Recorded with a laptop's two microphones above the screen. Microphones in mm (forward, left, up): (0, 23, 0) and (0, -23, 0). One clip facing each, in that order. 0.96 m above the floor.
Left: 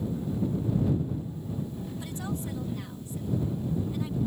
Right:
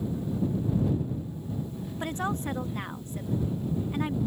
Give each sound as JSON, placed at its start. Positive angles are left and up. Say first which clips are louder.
{"t": 2.0, "sound": "a woman speaking", "louder": "right 7 dB", "side_deg": -50}